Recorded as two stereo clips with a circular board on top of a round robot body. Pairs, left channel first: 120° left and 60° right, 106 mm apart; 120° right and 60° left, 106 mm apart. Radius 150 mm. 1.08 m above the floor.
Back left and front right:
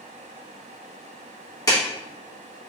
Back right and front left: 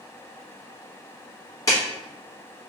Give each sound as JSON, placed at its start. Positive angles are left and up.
{"t": 1.7, "sound": "a clap", "azimuth_deg": 180, "distance_m": 1.5}